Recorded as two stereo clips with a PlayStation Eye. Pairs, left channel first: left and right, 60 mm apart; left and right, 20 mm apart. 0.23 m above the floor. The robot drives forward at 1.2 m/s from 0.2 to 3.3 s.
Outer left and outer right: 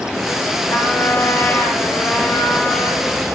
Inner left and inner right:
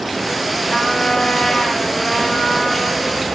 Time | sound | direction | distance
0.7 | a trumpet | 55° left (ahead or behind) | 4 m